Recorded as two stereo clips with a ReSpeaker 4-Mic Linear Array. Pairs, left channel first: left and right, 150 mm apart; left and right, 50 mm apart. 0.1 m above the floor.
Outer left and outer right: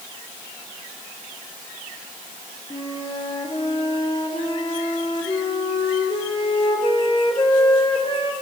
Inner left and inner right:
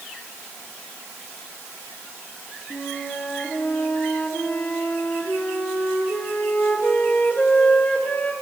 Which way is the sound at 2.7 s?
35° left (ahead or behind).